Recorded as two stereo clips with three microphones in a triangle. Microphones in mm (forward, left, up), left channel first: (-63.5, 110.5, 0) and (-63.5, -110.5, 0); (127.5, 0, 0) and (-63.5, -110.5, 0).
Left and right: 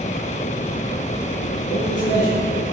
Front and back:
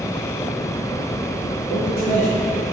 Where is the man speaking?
70° left, 3 m.